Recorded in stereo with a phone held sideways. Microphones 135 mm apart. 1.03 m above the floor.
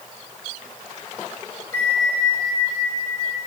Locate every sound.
1.7 s a bell: 15° left (ahead or behind), 4 m